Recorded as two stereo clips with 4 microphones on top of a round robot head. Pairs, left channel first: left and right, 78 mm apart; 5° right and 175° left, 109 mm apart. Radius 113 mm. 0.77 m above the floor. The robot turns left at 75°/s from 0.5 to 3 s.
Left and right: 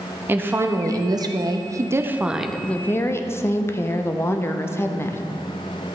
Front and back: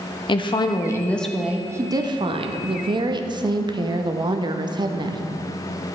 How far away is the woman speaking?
About 0.7 m.